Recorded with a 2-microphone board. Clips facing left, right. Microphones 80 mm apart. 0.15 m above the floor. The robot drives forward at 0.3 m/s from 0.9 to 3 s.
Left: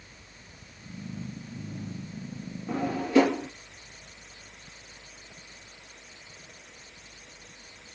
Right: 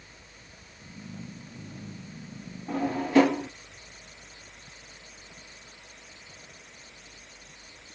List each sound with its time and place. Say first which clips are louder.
2.7 s a drawer: right 1 dB; 35° right (ahead or behind), 2.5 m